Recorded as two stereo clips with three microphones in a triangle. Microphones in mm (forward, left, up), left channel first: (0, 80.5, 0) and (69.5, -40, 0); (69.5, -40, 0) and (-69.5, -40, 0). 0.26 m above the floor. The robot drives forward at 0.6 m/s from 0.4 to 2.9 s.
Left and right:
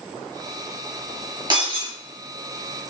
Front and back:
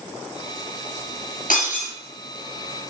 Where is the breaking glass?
5° right, 2.5 m.